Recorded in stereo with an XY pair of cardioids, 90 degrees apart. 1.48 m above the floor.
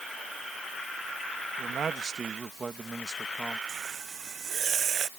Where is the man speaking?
60° right; by 3.6 s 10° right.